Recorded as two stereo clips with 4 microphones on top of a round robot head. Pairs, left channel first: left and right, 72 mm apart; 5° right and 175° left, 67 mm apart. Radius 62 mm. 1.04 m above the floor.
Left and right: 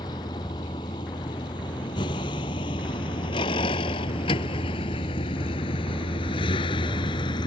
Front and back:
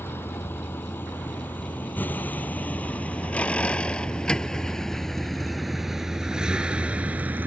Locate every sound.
0.0 s a vehicle: 50° left; by 7.5 s 110° left